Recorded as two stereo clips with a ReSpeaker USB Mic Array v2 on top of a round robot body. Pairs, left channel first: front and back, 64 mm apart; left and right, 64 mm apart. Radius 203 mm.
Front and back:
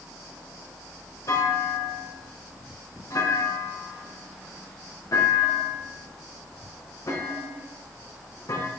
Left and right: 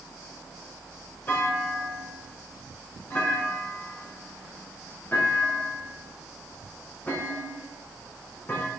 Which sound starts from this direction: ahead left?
A clunk, at 1.3 s.